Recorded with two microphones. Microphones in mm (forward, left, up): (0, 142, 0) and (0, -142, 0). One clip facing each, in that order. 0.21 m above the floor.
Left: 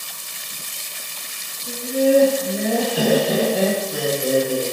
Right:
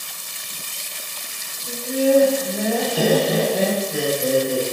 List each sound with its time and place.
1.7 s laughter: 35° left (ahead or behind), 1.4 m; by 4.6 s 20° right (ahead or behind), 1.3 m